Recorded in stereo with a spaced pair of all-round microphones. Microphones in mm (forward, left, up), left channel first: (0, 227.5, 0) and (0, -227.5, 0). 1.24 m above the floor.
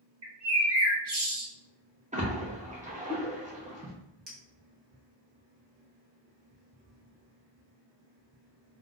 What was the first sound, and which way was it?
A bird, 60° right (ahead or behind).